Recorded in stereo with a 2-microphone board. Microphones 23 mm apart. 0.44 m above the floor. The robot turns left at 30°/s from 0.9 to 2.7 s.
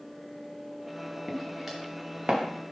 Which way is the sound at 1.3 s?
Centre (ahead or behind).